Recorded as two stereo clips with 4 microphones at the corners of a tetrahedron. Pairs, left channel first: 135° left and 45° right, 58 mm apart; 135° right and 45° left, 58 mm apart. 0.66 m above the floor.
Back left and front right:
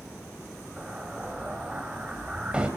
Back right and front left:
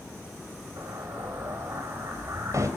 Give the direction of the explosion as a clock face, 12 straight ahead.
11 o'clock.